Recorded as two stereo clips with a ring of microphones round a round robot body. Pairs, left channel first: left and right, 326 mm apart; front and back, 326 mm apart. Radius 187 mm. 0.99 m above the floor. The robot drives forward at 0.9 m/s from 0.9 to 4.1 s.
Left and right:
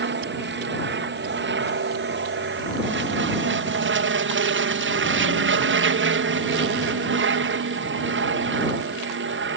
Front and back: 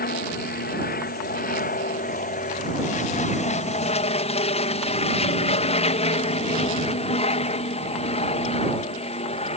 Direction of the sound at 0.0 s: 50° right.